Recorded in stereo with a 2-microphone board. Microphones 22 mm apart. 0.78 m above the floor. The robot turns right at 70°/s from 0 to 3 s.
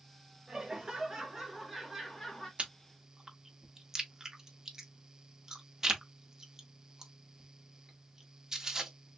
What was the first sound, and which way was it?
Laughter, 115° right.